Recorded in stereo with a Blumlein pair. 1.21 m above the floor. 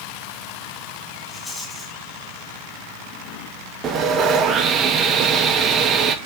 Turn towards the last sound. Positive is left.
turn(degrees=-25)